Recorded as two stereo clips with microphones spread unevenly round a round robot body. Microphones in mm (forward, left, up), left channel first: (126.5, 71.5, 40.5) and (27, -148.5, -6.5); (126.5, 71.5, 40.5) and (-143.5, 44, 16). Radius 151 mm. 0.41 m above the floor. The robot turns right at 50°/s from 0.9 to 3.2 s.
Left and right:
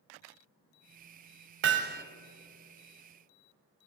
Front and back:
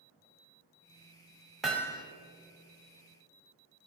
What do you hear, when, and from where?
1.6 s hammering: 90° right, 1.0 m; by 2.0 s 65° right, 1.0 m